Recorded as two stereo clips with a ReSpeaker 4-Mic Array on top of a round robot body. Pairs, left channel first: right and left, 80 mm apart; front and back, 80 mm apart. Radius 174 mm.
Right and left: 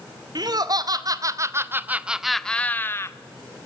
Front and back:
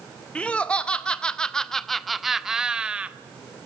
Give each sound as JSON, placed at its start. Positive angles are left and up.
{"t": 0.3, "sound": "laughter", "azimuth_deg": 75, "distance_m": 2.5}